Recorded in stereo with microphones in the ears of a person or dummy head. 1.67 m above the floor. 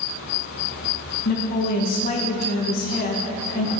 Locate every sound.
1.2 s a woman speaking: 45° left (ahead or behind), 1.8 m